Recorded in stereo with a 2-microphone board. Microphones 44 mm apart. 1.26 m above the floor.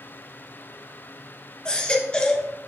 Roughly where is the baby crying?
Left.